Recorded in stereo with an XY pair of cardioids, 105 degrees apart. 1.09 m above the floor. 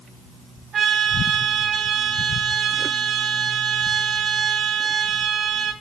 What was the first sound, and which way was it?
A trumpet, 60° right.